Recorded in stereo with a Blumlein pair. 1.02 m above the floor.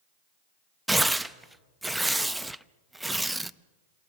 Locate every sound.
0.9 s tearing paper: 5° right, 0.7 m